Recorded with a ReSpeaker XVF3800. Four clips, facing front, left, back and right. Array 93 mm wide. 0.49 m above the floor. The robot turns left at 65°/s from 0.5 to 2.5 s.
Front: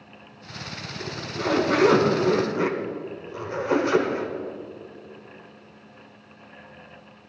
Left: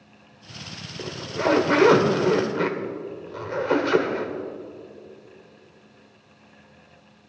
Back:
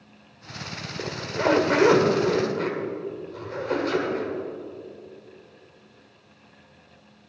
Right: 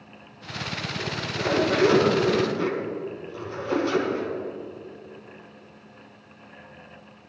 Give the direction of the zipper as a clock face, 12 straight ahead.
6 o'clock.